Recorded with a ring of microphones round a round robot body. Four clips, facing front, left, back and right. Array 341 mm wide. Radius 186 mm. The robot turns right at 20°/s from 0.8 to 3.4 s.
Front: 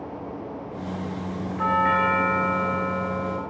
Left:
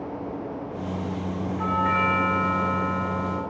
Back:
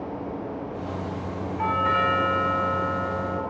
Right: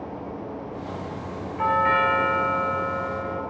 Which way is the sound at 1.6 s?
60° right.